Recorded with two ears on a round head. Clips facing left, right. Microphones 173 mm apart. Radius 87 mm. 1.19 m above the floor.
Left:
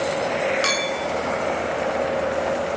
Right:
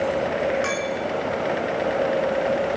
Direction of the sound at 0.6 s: 45° left (ahead or behind).